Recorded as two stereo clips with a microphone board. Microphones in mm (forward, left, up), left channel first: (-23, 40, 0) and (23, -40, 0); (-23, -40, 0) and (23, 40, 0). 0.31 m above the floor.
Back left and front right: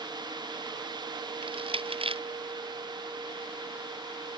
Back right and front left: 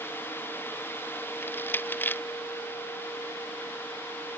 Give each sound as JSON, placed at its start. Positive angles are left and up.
{"t": 1.4, "sound": "crushing", "azimuth_deg": -50}